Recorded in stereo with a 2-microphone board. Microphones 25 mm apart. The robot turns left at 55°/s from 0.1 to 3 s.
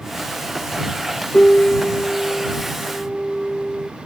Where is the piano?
75° left; by 3.9 s 15° right.